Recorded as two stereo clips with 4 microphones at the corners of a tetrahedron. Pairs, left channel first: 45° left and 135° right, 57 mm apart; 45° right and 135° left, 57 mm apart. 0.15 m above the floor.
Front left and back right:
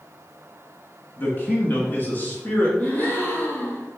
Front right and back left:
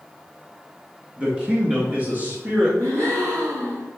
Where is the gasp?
105° left, 3 m.